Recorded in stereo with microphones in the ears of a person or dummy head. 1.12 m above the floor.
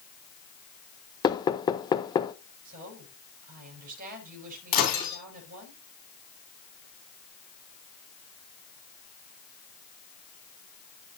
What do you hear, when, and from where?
1.2 s knocking: 20° left (ahead or behind), 0.9 m
2.6 s a woman speaking: 45° right (ahead or behind), 6 m
4.7 s breaking glass: 45° left (ahead or behind), 3.5 m